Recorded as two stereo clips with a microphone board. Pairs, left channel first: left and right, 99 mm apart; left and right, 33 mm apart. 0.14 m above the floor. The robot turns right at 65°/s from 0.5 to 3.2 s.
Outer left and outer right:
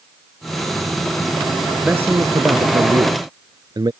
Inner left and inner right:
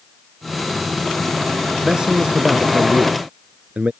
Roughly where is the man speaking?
Behind.